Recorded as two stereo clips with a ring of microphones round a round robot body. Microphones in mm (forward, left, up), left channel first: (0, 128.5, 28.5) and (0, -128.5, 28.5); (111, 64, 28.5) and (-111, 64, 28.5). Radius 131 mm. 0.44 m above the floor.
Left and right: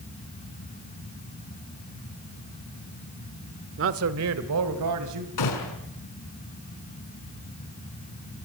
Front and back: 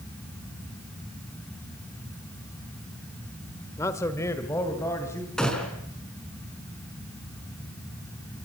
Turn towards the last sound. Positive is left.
turn(degrees=85)